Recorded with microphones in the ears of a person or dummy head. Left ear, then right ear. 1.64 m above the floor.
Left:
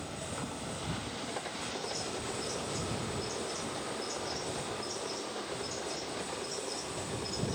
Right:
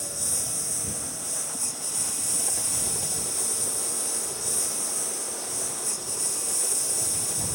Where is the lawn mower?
60° right (ahead or behind).